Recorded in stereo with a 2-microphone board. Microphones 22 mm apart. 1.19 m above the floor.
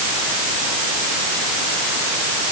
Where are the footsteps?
I don't hear footsteps.